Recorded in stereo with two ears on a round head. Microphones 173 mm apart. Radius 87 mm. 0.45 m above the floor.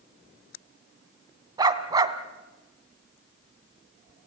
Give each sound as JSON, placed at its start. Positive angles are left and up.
{"t": 1.6, "sound": "a dog barking", "side_deg": -20, "distance_m": 1.2}